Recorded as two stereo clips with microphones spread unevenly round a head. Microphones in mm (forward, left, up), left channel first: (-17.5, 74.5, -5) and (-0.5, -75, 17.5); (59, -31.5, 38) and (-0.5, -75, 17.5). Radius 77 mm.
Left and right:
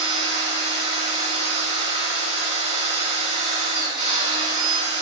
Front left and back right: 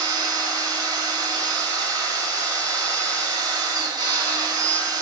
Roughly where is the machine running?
Behind right.